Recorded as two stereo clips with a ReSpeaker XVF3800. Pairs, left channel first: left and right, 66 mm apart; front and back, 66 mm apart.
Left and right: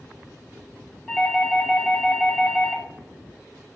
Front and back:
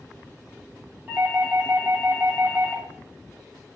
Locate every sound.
1.1 s a doorbell: 160° right, 1.8 m